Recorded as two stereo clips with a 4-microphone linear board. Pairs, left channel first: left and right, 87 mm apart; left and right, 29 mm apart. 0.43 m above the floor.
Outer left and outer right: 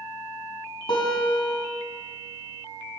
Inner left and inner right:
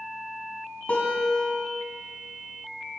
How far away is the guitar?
About 4 m.